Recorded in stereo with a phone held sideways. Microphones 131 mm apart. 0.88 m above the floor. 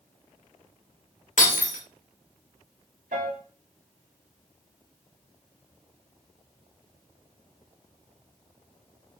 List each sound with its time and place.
1.4 s breaking glass: 70° left (ahead or behind), 0.8 m
3.1 s a piano: 65° right (ahead or behind), 1.2 m